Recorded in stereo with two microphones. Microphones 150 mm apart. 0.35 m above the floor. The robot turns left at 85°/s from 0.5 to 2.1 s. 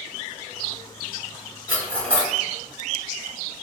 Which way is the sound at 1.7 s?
10° right (ahead or behind).